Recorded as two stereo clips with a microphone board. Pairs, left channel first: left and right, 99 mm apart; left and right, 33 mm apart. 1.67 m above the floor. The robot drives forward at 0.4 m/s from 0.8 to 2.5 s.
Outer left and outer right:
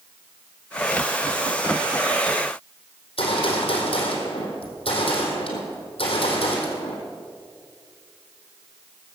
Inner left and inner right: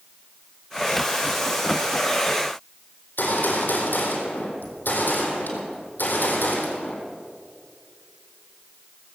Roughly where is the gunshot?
Left.